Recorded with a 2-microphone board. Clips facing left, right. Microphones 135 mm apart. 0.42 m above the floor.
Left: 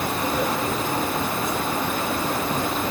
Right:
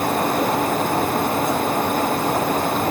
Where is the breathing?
I don't hear breathing.